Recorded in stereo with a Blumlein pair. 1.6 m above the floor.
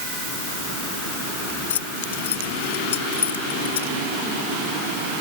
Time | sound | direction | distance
1.7 | keys jangling | 60° left | ?